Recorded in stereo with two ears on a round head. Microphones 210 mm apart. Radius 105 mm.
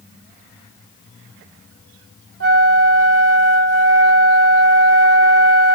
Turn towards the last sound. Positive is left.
turn(degrees=-55)  # may be behind; listen again after turning